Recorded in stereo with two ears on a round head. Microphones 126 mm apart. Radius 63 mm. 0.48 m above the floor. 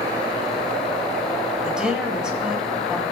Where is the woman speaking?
5° right (ahead or behind), 3 m.